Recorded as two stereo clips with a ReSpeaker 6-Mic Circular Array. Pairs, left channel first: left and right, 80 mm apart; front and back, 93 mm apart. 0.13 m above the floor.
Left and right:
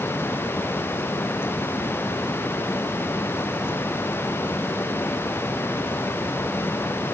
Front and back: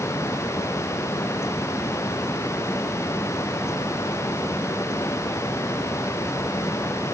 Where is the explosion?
I don't hear an explosion.